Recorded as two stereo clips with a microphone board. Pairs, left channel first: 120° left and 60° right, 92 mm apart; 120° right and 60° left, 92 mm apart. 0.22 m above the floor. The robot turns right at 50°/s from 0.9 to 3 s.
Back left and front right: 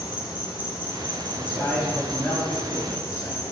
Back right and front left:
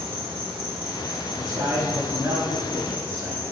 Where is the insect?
70° left, 1.4 m; by 3.5 s 175° left, 1.4 m.